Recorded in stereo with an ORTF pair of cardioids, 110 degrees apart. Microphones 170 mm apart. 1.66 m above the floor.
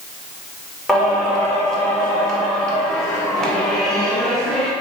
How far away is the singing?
About 0.6 m.